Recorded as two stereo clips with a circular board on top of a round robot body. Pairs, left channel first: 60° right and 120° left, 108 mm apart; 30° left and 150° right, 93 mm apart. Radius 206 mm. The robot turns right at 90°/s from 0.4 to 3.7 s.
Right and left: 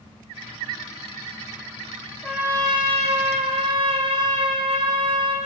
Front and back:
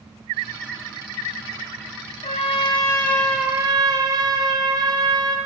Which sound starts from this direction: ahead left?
A trumpet, at 2.2 s.